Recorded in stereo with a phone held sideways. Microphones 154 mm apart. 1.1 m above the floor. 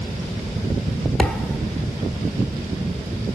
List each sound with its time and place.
1.2 s a thud: 5° left (ahead or behind), 1.3 m